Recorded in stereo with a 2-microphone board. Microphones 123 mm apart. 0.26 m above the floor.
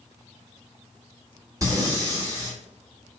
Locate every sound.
1.6 s breathing: 25° right (ahead or behind), 1.9 m